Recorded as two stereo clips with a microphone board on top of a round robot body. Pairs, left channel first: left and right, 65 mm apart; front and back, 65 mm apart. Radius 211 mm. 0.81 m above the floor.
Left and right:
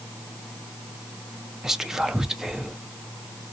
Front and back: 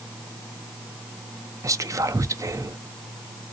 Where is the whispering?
175° right, 0.6 m.